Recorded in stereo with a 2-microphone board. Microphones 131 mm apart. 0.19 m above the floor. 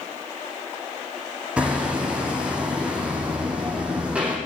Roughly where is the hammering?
Centre.